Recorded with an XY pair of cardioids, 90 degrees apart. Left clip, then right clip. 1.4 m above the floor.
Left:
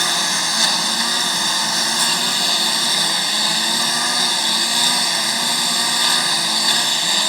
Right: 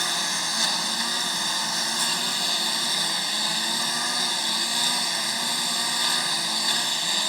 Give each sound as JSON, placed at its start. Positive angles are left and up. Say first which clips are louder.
{"t": 0.0, "sound": "a lawn mower", "louder": "left 7 dB", "azimuth_deg": 55}